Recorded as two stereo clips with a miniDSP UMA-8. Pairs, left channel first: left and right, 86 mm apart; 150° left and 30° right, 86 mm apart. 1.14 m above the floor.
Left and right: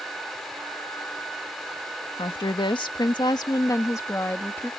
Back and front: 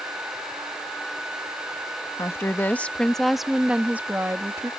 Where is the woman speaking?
95° left; by 4.7 s 25° left.